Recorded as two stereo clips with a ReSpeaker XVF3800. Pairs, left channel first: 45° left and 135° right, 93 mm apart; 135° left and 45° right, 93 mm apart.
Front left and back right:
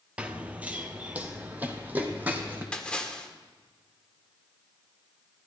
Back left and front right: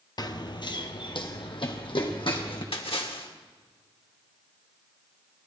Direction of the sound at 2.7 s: 125° left.